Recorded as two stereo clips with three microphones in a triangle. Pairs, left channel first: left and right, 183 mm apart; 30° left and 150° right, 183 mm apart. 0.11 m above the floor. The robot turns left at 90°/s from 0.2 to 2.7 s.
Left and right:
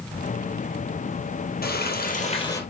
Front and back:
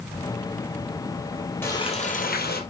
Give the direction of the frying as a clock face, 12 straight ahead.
8 o'clock.